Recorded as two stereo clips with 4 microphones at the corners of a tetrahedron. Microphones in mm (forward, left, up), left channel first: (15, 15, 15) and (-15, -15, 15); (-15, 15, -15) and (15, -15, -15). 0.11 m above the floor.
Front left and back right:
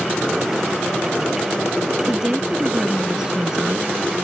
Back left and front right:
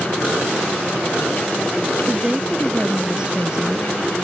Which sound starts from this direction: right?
A woman speaking, at 2.1 s.